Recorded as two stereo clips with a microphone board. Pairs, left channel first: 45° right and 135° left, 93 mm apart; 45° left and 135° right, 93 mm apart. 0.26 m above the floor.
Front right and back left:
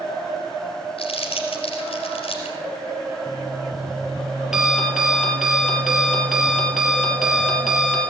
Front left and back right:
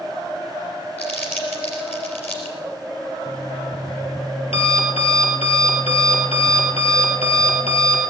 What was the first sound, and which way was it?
Crumpling, 25° right.